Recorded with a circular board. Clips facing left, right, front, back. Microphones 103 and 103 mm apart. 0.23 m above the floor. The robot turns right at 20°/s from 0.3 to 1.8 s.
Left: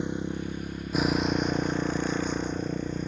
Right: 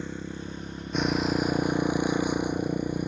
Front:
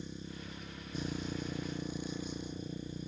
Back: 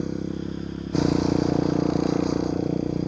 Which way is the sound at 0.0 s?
165° left.